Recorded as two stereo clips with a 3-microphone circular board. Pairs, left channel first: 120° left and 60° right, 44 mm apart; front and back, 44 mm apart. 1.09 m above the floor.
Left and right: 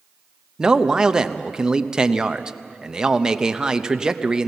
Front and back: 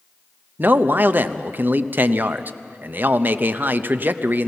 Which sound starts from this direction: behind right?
A man speaking, at 0.6 s.